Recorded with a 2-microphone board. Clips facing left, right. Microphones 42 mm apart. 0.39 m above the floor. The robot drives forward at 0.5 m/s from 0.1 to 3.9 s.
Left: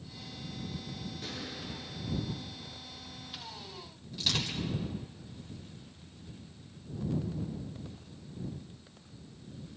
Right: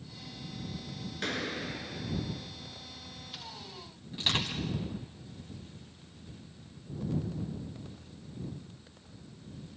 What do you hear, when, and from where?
1.2 s a gunshot: 70° right (ahead or behind), 1.0 m; by 2.5 s 45° right (ahead or behind), 1.4 m
4.1 s crushing: 30° right (ahead or behind), 3.5 m